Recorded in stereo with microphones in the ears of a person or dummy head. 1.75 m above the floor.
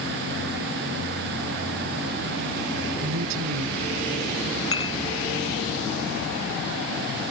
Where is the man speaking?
80° right.